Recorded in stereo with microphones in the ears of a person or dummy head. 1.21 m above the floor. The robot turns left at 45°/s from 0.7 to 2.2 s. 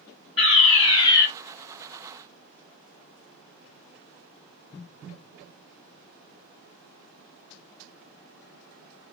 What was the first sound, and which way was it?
A fire alarm, 30° left (ahead or behind).